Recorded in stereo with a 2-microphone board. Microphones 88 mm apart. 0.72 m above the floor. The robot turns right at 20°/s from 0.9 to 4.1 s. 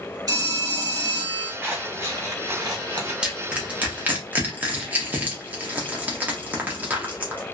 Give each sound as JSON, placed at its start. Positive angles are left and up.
{"t": 0.3, "sound": "a phone ringing", "side_deg": -45, "distance_m": 1.2}
{"t": 1.6, "sound": "scissors", "azimuth_deg": -160, "distance_m": 1.4}
{"t": 3.2, "sound": "crushing", "side_deg": -10, "distance_m": 0.9}